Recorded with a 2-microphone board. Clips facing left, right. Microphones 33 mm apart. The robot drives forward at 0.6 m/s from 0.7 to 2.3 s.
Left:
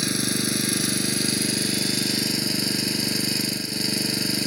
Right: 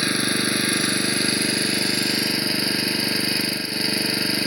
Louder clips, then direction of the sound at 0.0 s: Right 4 dB; 30° right (ahead or behind).